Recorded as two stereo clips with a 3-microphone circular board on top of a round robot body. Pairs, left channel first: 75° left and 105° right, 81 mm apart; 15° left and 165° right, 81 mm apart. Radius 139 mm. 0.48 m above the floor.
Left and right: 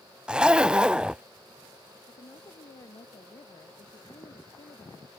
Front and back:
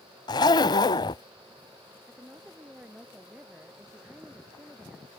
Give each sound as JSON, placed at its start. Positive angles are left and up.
{"t": 0.3, "sound": "a zipper", "azimuth_deg": -25}
{"t": 2.1, "sound": "a woman speaking", "azimuth_deg": 115}